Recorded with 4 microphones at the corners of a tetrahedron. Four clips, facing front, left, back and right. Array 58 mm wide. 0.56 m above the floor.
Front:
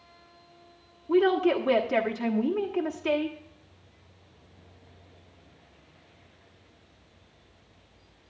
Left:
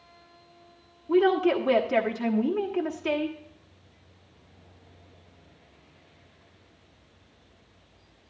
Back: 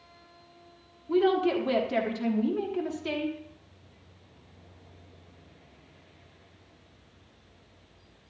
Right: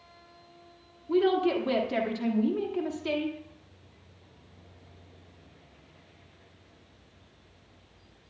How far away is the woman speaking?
About 1.2 m.